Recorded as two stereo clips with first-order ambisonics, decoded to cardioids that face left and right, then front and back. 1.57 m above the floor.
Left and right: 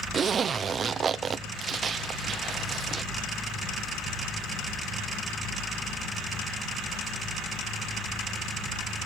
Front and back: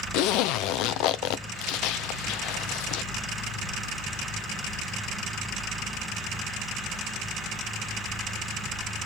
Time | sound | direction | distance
0.1 | a zipper | 25° right | 0.7 m